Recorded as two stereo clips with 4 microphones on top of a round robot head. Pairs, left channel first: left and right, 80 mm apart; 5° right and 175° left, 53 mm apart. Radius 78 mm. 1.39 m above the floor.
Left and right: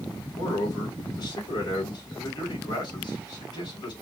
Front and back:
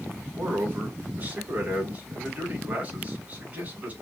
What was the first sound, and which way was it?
A man speaking, 115° left.